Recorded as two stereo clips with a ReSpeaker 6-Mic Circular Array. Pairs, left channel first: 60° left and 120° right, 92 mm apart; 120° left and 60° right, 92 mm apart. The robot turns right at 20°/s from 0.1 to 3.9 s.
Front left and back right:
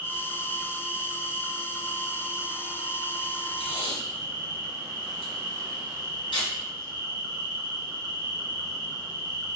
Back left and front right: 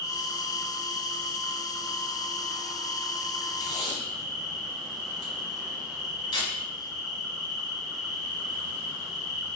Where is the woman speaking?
No woman speaking in this recording.